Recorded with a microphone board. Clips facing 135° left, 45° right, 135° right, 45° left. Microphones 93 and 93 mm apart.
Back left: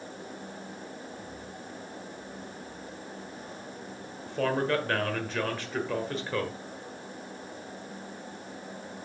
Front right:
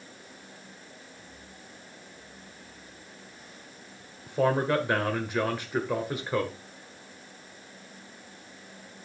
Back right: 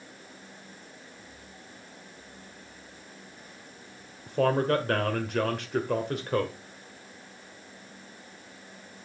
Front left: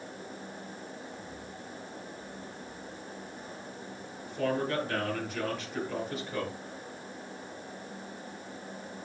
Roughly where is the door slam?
I don't hear a door slam.